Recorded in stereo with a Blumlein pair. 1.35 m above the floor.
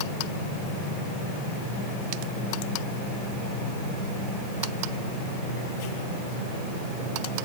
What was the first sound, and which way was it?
Only background noise.